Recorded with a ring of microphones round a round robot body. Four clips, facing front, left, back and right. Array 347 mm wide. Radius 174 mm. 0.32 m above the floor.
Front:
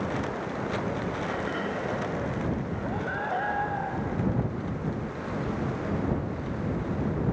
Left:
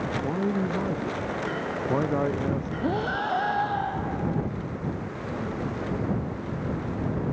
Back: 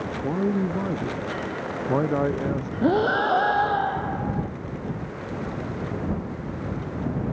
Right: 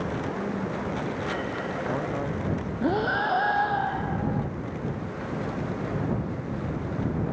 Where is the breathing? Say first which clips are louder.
Right 4 dB, back 11 dB; 175° right.